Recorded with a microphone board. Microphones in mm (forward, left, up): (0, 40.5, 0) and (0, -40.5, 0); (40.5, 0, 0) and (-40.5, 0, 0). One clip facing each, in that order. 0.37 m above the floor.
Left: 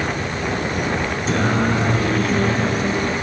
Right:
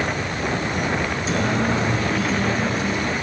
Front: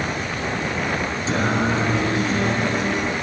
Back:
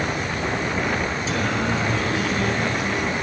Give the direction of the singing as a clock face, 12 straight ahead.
10 o'clock.